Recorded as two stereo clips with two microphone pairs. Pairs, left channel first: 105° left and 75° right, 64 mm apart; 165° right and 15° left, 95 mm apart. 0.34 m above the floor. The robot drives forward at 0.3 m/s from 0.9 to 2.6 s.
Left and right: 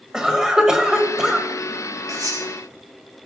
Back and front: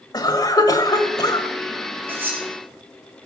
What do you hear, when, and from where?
0.1 s a cough: 155° right, 1.5 m
2.1 s cutlery clinking: 55° right, 4.5 m; by 2.5 s 60° right, 4 m